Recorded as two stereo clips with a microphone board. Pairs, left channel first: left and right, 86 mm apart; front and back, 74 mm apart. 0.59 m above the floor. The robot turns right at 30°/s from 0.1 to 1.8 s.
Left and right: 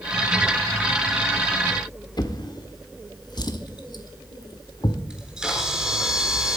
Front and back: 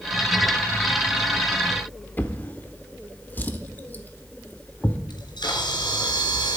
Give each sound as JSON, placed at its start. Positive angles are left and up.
{"t": 2.2, "sound": "a drawer", "azimuth_deg": 60, "distance_m": 1.0}
{"t": 5.1, "sound": "a camera shutter", "azimuth_deg": -5, "distance_m": 3.5}